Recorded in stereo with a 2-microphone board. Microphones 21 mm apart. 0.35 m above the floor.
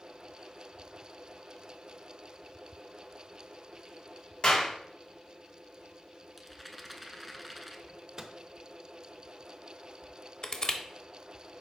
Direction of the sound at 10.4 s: 35° left (ahead or behind).